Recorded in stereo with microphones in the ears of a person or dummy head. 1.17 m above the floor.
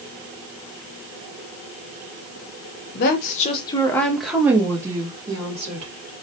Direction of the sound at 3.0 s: 55° left (ahead or behind).